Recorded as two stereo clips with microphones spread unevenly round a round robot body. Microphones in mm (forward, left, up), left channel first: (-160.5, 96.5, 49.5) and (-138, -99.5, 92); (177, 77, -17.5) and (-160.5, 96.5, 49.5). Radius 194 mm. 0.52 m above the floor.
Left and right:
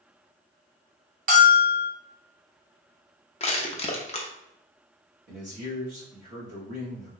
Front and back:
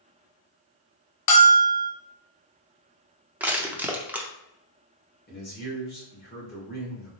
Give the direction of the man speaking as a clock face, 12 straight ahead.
1 o'clock.